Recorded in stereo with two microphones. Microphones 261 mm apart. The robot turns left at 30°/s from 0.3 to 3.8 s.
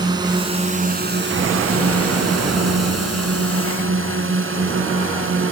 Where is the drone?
15° right (ahead or behind); by 5.5 s 50° right (ahead or behind).